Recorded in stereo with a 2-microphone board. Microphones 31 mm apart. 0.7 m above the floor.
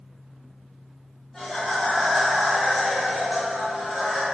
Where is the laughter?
10° left (ahead or behind), 1.4 m; by 4.2 s 40° right (ahead or behind), 1.9 m.